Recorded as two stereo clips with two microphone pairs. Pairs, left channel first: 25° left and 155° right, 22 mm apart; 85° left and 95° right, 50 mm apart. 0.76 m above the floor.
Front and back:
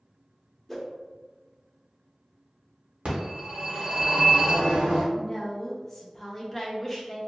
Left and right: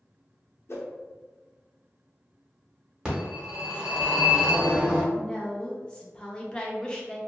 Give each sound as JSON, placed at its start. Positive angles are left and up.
{"t": 0.7, "sound": "a whoosh", "azimuth_deg": 100, "distance_m": 0.5}
{"t": 3.0, "sound": "a phone ringing", "azimuth_deg": -165, "distance_m": 1.2}
{"t": 5.1, "sound": "a woman speaking", "azimuth_deg": 70, "distance_m": 0.6}